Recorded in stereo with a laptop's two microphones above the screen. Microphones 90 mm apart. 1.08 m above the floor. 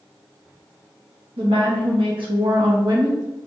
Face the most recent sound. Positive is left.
turn(degrees=-45)  # may be behind; listen again after turning